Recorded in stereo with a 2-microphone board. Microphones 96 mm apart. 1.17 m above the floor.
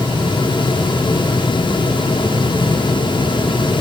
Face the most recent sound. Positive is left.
No sound to turn to.